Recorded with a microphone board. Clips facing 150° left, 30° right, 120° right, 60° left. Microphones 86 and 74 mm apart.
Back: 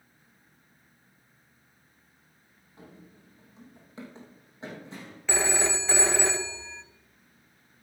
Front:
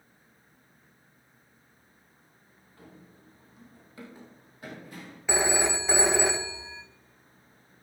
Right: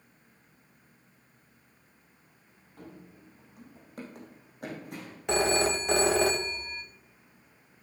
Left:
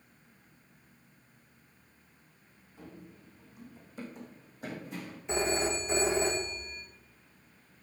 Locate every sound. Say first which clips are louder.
2.8 s running footsteps: back 2 dB, right 1 dB; 140° right, 3 m; by 5.2 s 145° right, 4.5 m
5.3 s a phone ringing: front 2 dB, right 5 dB; 105° right, 0.8 m